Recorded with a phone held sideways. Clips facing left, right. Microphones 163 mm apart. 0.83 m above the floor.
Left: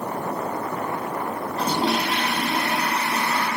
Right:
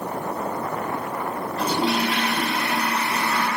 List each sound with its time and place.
1.6 s a toilet flushing: 50° left (ahead or behind), 5 m